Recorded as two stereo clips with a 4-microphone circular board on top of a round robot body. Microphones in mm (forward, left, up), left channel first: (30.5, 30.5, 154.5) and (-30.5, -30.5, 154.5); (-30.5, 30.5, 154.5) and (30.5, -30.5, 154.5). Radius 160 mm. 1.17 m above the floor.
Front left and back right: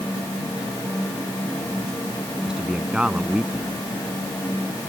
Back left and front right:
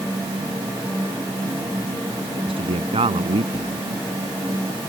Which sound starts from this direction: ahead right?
A man speaking, at 2.3 s.